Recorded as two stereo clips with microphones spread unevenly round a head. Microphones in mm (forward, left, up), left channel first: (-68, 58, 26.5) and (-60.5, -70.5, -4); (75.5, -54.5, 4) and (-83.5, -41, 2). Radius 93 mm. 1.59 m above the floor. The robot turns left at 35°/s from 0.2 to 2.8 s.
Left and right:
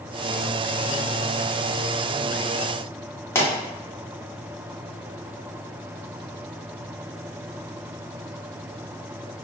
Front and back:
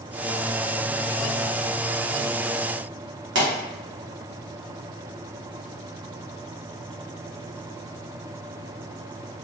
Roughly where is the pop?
Behind.